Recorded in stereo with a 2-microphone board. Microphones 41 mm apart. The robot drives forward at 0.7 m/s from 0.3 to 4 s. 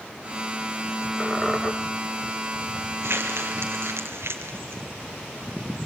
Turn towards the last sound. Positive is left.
turn(degrees=-70)  # may be behind; listen again after turning